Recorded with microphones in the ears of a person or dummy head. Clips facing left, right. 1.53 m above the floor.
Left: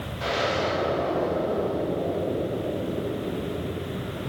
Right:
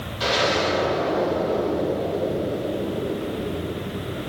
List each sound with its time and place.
0.2 s an explosion: 50° right (ahead or behind), 5.5 m